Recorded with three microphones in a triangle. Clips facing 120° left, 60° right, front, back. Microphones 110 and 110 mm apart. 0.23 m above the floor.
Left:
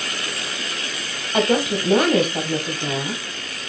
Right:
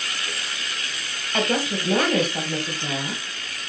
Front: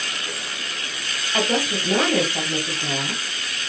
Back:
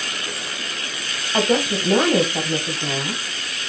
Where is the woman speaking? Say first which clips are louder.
Left 5 dB, back 4 dB; 155° left, 0.9 m.